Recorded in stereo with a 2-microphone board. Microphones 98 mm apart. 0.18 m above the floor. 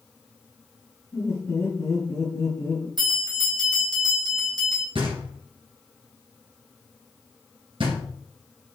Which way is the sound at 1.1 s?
35° left (ahead or behind).